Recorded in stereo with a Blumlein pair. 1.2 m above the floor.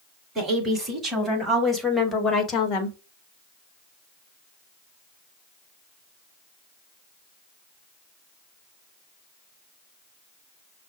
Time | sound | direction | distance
0.3 | a woman speaking | 20° right | 2.5 m